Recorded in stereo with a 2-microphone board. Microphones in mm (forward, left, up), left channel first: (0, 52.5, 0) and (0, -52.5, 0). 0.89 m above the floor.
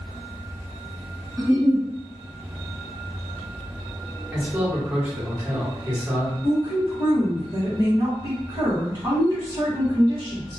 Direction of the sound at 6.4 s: 40° right (ahead or behind).